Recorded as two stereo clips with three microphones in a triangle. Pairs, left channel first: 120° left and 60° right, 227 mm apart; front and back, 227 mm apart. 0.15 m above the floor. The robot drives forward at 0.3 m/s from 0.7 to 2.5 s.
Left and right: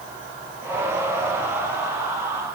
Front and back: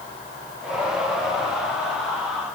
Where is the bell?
No bell in this recording.